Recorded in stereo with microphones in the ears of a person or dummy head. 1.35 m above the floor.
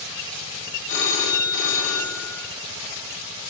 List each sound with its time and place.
0.9 s a phone ringing: 65° left (ahead or behind), 1.0 m